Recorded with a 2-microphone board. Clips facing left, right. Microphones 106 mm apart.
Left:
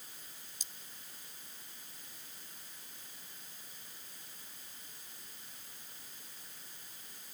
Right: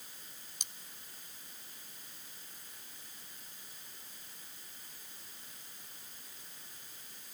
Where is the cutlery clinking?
65° right (ahead or behind).